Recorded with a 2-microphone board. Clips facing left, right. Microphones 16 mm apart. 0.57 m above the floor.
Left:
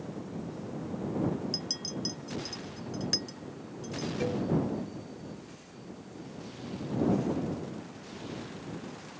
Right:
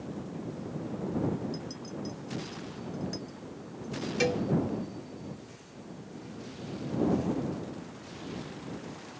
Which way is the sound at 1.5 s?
50° left (ahead or behind).